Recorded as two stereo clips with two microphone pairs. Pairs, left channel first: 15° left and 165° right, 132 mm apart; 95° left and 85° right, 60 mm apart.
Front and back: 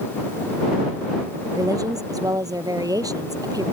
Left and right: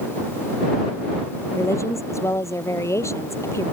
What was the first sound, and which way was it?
A woman speaking, 130° left.